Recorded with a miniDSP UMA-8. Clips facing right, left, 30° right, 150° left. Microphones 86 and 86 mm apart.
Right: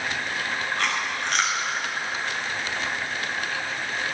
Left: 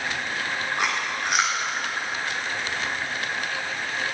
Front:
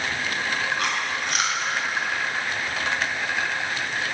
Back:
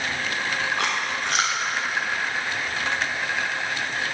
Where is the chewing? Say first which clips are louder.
Left 1 dB, back 1 dB; 165° left, 4.5 m.